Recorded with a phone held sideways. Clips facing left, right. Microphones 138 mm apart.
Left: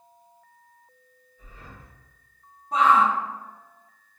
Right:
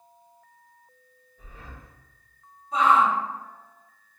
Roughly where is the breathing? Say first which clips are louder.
Right 1 dB; right.